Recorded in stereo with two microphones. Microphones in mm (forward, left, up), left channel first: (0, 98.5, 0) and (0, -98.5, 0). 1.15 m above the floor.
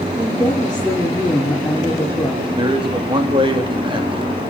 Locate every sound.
0.2 s a woman speaking: 5° left (ahead or behind), 3 m
2.6 s a man speaking: 25° right (ahead or behind), 2.5 m